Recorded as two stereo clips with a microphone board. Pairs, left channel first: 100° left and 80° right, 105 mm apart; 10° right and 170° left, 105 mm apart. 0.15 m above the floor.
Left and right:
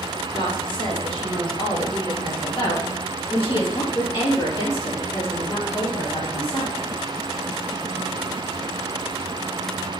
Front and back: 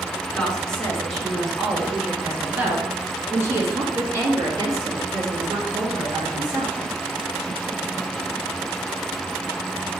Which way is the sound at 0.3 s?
70° left.